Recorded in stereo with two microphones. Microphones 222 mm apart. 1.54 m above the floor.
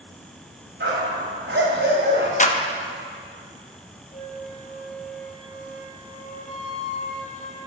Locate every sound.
0.8 s a dog barking: 55° right (ahead or behind), 2.5 m
2.4 s a clap: 35° left (ahead or behind), 0.8 m
4.1 s a flute: 35° left (ahead or behind), 1.7 m